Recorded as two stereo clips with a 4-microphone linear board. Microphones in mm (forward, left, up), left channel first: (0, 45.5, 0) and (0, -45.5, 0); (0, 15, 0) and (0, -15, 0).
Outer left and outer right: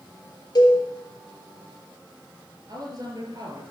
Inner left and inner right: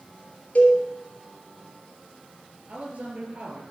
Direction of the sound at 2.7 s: 45° right (ahead or behind).